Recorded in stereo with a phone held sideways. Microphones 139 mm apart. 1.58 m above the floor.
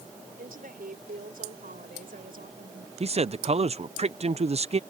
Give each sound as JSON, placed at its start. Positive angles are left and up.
{"t": 0.4, "sound": "a woman speaking", "side_deg": -85}
{"t": 3.0, "sound": "a man speaking", "side_deg": -45}